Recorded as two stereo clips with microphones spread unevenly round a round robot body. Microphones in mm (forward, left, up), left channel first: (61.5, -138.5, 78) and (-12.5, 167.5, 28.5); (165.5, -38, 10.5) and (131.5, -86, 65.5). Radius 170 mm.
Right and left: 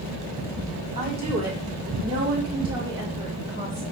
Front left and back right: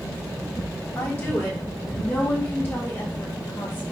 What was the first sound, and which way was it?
A woman speaking, 40° left.